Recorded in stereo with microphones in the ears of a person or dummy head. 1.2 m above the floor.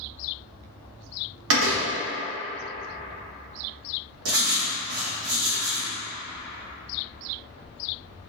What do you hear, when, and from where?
1.5 s a door slam: 80° right, 1.3 m
4.2 s writing: 80° right, 1.3 m